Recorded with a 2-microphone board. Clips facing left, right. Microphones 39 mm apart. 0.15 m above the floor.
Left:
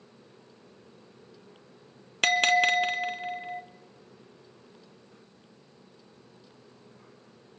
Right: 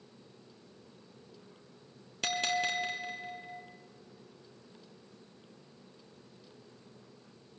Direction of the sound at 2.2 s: 55° left (ahead or behind).